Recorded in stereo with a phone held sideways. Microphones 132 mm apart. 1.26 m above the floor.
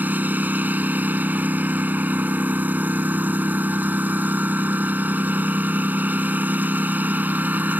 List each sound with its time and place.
0.0 s a lawn mower: 15° right (ahead or behind)